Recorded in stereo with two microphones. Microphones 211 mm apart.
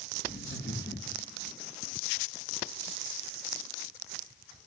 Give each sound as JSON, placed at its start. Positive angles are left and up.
{"t": 0.2, "sound": "laughter", "side_deg": 65, "distance_m": 3.5}